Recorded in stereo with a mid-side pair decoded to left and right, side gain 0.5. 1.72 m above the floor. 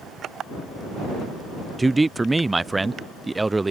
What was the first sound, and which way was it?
A man speaking, 15° right.